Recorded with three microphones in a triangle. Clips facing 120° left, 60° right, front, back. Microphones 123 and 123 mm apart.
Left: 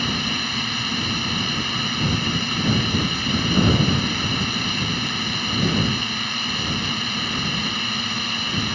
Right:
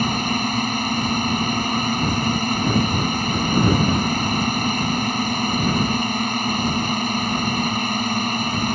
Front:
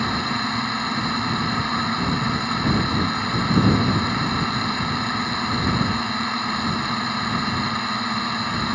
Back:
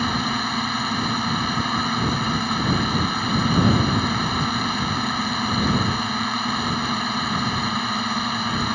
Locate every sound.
0.0 s a drone: 95° right